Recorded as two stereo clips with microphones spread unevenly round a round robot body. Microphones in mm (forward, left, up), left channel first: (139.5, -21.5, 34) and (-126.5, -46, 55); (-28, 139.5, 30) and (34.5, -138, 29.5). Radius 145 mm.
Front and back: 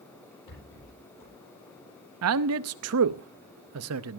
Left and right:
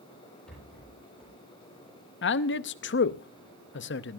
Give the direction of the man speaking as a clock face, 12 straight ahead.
7 o'clock.